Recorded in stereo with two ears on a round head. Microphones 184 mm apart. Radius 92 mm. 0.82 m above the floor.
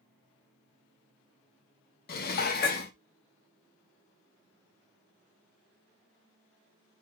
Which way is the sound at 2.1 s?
50° left (ahead or behind).